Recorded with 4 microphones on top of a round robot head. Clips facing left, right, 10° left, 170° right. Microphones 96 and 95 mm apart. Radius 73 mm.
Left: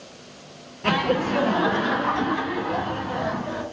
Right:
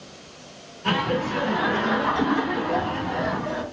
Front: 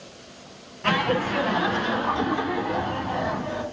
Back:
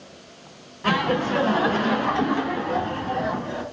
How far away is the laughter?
About 1.1 m.